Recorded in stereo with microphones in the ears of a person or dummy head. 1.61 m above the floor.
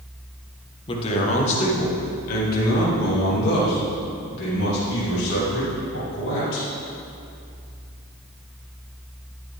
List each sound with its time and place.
0.9 s a man speaking: 30° left (ahead or behind), 1.5 m; by 6.7 s 80° left, 4.5 m